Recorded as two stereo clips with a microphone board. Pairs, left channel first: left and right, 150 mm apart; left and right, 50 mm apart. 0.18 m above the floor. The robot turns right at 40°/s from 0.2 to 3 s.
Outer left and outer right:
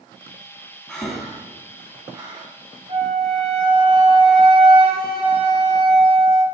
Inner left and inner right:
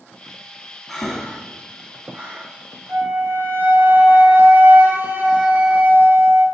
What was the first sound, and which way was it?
Breathing, 5° left (ahead or behind).